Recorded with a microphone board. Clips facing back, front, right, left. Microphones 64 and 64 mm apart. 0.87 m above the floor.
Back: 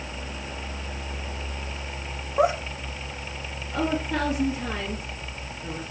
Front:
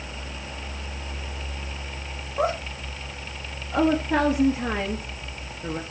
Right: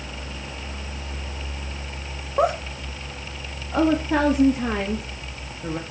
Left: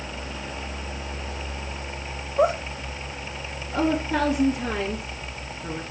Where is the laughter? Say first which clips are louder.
Back 3 dB, even; 110° right, 3 m.